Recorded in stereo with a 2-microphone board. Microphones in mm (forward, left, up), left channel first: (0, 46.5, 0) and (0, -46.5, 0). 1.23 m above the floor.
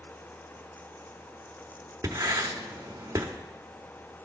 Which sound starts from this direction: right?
Writing, at 2.0 s.